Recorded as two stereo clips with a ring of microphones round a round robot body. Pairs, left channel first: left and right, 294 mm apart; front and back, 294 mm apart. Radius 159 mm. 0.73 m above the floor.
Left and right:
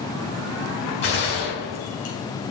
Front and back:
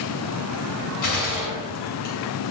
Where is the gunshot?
30° left, 4 m.